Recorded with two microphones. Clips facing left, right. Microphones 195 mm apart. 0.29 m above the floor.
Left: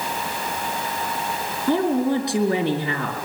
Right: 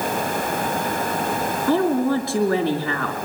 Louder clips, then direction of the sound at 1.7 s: Even; 15° left (ahead or behind).